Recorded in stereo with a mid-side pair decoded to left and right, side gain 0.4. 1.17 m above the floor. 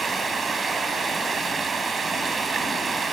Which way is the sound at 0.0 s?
45° right.